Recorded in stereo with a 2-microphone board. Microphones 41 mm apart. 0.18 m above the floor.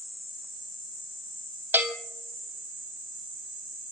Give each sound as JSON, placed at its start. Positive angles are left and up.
{"t": 1.7, "sound": "a bell", "side_deg": -50, "distance_m": 1.3}